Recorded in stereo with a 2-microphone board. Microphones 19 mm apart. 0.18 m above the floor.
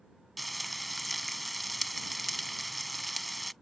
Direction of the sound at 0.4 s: 5° left (ahead or behind).